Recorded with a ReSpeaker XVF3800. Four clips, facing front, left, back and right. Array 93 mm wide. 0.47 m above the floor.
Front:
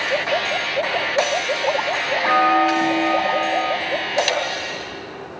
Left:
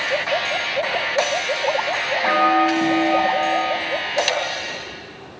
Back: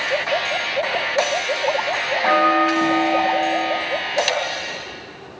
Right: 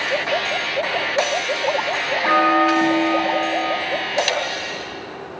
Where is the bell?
150° left, 3.5 m.